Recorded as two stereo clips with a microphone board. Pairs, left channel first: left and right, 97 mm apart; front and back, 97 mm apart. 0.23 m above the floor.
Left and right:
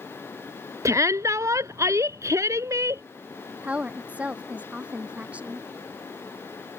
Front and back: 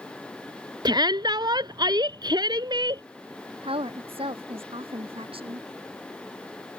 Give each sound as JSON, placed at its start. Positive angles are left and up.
{"t": 0.8, "sound": "a shout", "azimuth_deg": -145}
{"t": 3.6, "sound": "a woman speaking", "azimuth_deg": -165}